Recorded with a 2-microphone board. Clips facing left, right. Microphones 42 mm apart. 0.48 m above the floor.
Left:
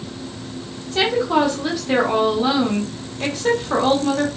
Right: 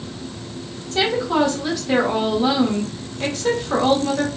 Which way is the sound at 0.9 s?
10° left (ahead or behind).